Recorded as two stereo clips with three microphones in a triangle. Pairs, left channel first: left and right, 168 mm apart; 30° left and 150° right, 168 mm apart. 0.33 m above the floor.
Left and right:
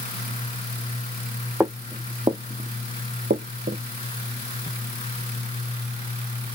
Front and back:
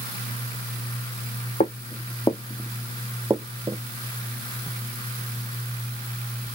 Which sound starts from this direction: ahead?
Footsteps, at 1.6 s.